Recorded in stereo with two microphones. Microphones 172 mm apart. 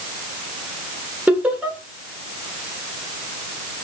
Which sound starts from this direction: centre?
Laughter, at 1.3 s.